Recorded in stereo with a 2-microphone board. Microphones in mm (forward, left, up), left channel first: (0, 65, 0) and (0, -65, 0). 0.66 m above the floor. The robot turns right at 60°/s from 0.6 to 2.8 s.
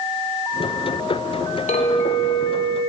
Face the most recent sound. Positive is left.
turn(degrees=175)